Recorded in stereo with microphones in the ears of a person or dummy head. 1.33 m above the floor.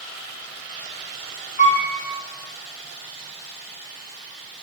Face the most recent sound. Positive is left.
turn(degrees=35)  # may be behind; listen again after turning